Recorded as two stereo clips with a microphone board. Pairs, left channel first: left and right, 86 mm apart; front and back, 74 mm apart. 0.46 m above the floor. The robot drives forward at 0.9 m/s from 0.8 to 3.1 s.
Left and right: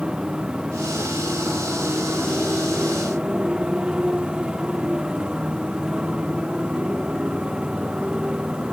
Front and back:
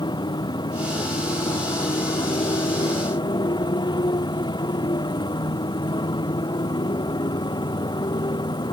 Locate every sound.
0.0 s a motorcycle: 10° right